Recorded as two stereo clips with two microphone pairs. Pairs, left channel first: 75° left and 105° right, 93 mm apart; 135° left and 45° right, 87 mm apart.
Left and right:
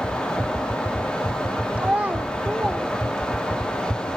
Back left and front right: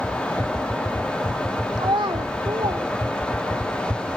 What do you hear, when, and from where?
1.8 s a child speaking: 30° right, 0.8 m